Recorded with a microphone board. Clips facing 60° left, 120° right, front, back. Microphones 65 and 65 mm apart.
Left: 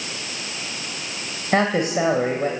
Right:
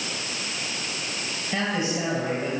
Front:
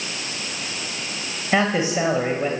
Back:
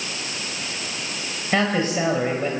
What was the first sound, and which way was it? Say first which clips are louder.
A man speaking: left 7 dB, front 1 dB; 75° left.